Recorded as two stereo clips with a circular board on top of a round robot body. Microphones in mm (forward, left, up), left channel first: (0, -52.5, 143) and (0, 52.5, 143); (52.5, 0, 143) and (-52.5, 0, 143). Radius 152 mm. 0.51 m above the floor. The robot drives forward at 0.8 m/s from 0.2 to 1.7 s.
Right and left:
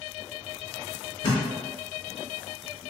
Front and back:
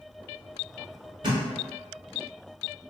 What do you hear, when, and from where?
1.2 s a thud: 135° right, 1.0 m; by 1.4 s 140° right, 1.1 m